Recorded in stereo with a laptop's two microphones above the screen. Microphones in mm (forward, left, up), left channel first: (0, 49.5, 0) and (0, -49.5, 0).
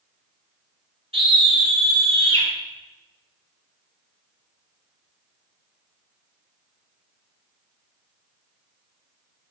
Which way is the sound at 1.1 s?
75° right (ahead or behind).